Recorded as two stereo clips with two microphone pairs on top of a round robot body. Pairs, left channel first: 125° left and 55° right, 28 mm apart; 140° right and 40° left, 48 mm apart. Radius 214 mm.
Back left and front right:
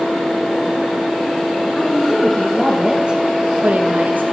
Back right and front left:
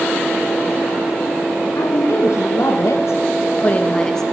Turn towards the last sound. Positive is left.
turn(degrees=-60)